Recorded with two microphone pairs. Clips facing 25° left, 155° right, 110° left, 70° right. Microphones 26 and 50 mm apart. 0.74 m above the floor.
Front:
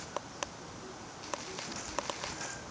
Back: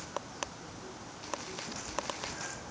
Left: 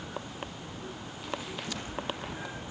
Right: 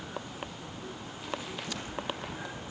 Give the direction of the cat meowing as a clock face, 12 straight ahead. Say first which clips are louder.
Even, even; 7 o'clock.